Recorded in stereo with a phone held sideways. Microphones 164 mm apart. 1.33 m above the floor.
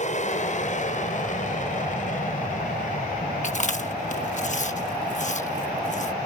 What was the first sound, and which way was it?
An aircraft, 45° left (ahead or behind).